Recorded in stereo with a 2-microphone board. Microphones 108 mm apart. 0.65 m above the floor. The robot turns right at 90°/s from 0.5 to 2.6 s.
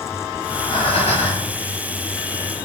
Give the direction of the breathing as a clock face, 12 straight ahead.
11 o'clock.